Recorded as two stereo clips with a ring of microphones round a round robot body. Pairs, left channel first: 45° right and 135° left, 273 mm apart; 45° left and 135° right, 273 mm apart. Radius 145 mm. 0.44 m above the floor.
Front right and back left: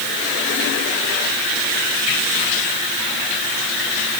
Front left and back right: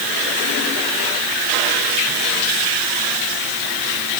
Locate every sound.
Only background noise.